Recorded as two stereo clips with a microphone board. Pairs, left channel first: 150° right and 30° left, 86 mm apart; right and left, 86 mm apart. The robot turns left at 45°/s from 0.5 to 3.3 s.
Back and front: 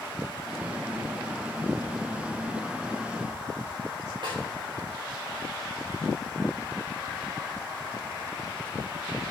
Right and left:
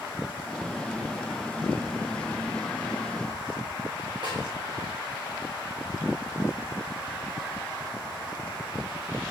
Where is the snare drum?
60° left, 4.5 m.